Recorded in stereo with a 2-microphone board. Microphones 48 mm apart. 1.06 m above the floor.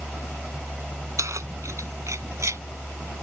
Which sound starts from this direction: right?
Keys jangling, at 1.2 s.